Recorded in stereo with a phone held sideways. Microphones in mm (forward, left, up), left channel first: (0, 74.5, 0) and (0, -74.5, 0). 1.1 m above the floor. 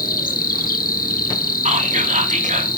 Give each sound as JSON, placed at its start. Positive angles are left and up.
{"t": 0.0, "sound": "an insect", "side_deg": 70, "distance_m": 1.5}
{"t": 1.6, "sound": "whispering", "side_deg": -55, "distance_m": 2.0}